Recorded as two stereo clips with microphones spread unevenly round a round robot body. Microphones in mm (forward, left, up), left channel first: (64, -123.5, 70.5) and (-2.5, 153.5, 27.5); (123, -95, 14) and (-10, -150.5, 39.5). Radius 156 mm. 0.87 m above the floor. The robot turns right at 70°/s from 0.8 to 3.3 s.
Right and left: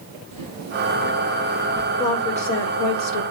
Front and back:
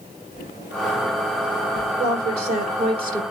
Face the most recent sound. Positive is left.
turn(degrees=-80)